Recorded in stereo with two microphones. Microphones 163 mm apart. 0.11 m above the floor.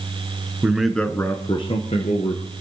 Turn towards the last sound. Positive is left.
turn(degrees=50)  # may be behind; listen again after turning